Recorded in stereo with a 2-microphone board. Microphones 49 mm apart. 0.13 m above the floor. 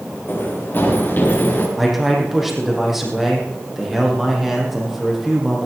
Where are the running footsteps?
45° left (ahead or behind), 5 m; by 1.7 s 40° left (ahead or behind), 6 m.